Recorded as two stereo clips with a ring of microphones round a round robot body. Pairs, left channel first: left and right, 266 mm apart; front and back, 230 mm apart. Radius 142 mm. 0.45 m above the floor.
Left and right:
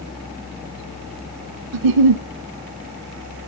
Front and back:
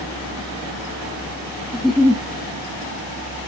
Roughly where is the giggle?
Right.